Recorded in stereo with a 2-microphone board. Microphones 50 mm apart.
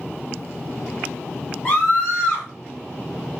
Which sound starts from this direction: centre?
A scream, at 1.6 s.